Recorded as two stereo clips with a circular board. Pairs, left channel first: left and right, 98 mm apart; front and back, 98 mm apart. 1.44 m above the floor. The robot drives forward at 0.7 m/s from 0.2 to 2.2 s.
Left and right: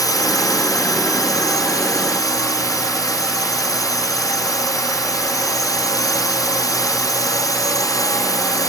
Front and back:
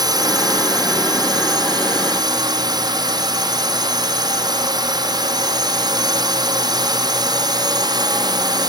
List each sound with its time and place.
0.0 s a drone: 135° left; by 8.7 s 140° left